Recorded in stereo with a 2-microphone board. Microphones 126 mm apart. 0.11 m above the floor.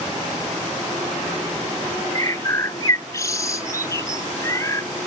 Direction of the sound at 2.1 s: 25° left (ahead or behind).